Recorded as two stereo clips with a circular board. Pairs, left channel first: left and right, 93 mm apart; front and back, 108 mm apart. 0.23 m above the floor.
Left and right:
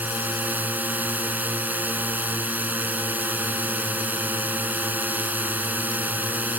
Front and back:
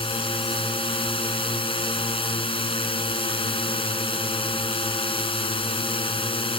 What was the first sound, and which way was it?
A drone, 20° right.